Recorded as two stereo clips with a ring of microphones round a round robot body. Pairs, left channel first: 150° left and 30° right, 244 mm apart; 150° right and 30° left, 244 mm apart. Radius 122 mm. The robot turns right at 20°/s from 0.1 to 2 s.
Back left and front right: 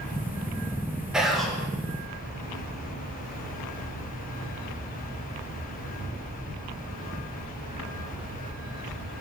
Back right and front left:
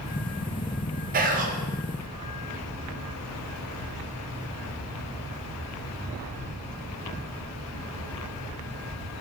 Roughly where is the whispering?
Ahead left.